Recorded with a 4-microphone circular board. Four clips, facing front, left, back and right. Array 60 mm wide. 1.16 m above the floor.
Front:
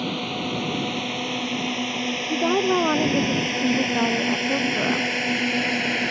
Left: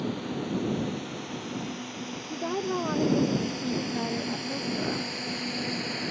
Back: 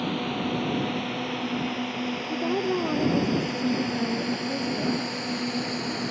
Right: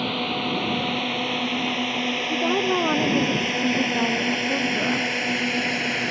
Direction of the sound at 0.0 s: 75° right.